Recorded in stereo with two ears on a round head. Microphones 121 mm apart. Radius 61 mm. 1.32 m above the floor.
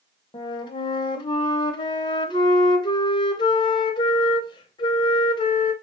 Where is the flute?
35° left (ahead or behind), 0.5 m.